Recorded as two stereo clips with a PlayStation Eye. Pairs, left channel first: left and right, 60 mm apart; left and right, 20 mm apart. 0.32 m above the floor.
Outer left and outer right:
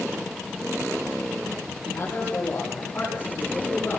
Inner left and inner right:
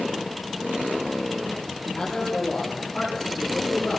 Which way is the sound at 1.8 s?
40° left (ahead or behind).